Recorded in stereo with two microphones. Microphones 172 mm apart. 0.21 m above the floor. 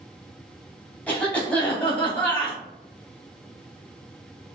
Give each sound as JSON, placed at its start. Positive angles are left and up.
{"t": 1.1, "sound": "a cough", "side_deg": 5, "distance_m": 1.0}